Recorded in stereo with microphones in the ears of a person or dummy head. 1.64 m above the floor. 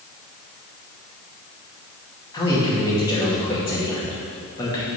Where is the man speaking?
25° left (ahead or behind), 2.5 m.